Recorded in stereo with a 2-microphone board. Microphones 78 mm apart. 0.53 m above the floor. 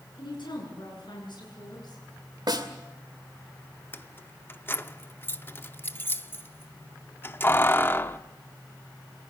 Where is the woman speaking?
75° left (ahead or behind), 8.5 m; by 2.0 s 60° left (ahead or behind), 8.5 m.